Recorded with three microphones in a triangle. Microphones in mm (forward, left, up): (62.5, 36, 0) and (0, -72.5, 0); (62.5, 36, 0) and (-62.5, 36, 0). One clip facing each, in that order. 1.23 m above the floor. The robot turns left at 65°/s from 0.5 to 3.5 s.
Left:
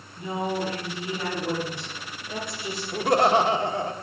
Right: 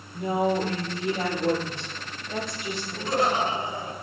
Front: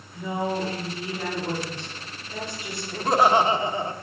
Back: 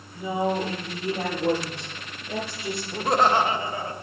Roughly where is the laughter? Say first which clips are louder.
Left 5 dB, front 2 dB; left.